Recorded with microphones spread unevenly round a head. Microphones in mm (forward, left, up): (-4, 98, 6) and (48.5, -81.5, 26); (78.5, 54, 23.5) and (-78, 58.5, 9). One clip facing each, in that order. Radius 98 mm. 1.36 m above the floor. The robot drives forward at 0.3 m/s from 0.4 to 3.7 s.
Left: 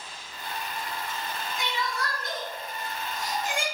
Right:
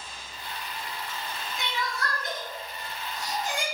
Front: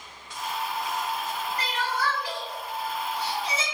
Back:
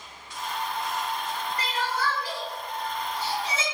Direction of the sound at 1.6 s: 90° right.